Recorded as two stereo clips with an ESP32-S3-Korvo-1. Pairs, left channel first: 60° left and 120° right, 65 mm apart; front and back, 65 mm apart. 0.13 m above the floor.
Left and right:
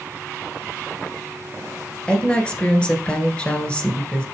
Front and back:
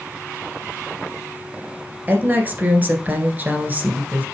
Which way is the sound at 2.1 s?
130° left.